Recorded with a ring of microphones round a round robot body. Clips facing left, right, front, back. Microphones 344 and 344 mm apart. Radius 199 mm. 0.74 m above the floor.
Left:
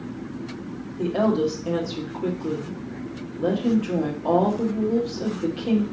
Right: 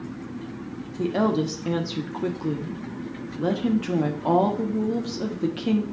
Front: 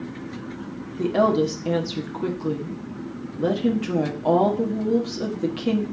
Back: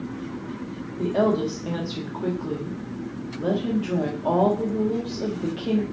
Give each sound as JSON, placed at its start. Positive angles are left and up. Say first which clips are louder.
{"t": 1.0, "sound": "a woman speaking", "louder": "left 1 dB, front 2 dB", "azimuth_deg": -40, "distance_m": 1.2}